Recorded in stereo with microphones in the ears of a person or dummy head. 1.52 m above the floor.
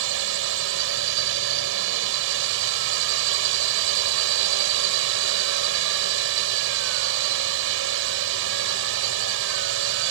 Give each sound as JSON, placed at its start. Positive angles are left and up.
{"t": 0.0, "sound": "a drone", "side_deg": -75}